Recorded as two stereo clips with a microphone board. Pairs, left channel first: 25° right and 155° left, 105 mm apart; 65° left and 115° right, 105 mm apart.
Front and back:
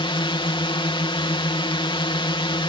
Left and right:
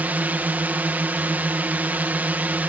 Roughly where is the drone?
Ahead right.